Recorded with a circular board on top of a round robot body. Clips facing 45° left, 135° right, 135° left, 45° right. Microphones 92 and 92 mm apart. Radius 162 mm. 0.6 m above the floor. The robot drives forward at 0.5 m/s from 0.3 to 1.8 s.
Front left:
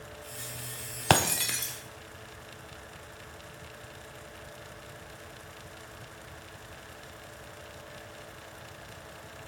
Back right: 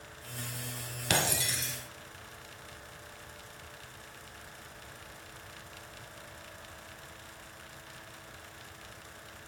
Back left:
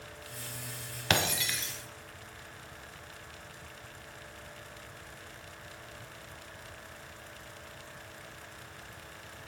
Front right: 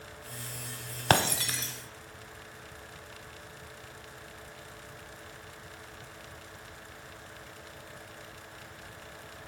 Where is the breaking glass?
10° left, 1.2 m.